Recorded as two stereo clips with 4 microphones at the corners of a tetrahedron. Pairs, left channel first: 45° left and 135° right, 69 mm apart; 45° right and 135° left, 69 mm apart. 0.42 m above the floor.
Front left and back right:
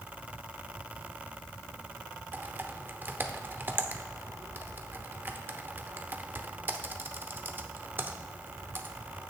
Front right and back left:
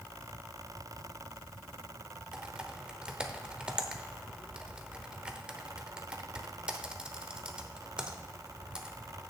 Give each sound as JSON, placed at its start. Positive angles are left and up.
{"t": 2.3, "sound": "typing on a keyboard", "azimuth_deg": -160, "distance_m": 0.8}